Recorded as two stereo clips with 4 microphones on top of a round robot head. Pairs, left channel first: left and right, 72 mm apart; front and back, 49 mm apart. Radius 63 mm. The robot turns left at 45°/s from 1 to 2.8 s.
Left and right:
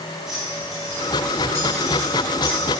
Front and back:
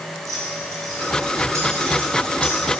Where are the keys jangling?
175° right, 1.9 m; by 2.6 s 110° left, 1.9 m.